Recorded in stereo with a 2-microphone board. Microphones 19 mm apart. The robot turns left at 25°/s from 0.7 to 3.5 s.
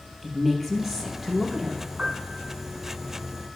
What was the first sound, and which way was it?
A woman speaking, centre (ahead or behind).